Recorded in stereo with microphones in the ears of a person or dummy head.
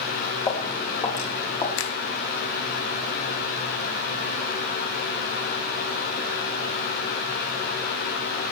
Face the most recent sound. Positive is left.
turn(degrees=70)  # may be behind; listen again after turning